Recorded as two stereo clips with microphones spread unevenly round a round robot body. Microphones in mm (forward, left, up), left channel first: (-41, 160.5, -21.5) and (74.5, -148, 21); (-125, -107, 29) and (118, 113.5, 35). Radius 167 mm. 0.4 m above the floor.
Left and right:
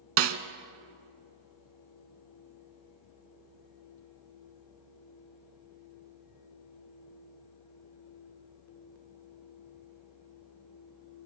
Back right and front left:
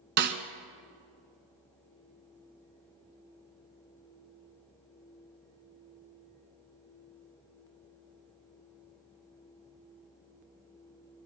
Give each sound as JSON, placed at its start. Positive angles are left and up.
{"t": 0.2, "sound": "a snare drum", "azimuth_deg": -20, "distance_m": 0.8}